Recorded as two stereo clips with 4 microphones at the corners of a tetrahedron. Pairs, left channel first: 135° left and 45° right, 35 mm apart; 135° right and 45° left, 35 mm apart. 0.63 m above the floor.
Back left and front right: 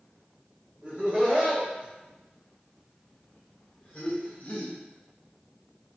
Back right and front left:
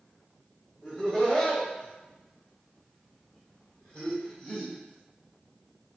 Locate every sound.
0.8 s laughter: 65° right, 1.5 m; by 4.8 s 175° left, 1.7 m